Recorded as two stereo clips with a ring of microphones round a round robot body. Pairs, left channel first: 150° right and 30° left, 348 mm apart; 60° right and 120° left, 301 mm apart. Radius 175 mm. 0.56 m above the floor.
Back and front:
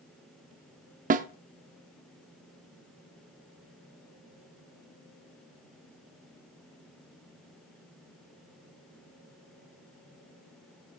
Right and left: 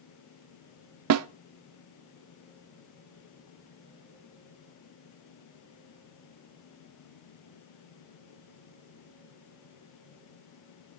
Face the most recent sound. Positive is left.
turn(degrees=95)